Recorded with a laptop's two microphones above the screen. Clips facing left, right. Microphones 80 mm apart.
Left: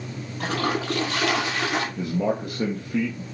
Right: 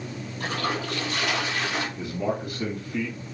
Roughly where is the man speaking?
Left.